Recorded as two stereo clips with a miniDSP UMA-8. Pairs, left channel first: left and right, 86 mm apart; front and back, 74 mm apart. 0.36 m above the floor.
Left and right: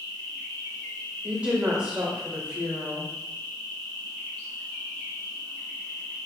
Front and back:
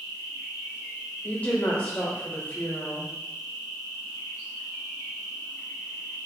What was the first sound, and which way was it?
An insect, 140° left.